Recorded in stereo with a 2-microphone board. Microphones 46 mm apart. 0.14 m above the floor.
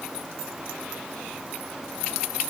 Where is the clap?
No clap in this recording.